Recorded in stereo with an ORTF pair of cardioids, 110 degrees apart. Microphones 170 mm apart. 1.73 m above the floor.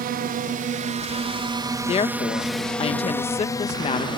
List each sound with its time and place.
0.0 s a drone: 65° right; by 4.2 s 30° left
1.9 s a woman speaking: 35° left